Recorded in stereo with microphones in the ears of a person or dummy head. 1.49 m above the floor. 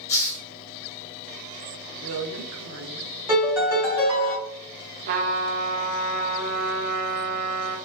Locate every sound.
0.1 s a hiss: 20° left (ahead or behind), 1.1 m
2.0 s a woman speaking: 75° right (ahead or behind), 1.0 m
3.3 s a piano: 10° right (ahead or behind), 1.4 m
5.1 s a trumpet: 50° right (ahead or behind), 0.6 m